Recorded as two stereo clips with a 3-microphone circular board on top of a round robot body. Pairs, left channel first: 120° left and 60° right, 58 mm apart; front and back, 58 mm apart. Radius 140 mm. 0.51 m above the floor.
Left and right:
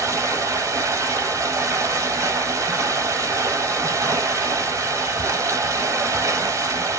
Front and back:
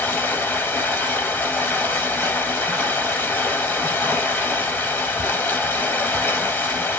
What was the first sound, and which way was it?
Running water, 50° right.